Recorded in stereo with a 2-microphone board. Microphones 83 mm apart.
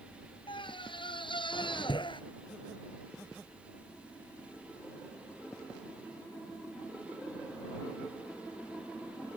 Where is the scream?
80° left; by 2.2 s 75° left (ahead or behind).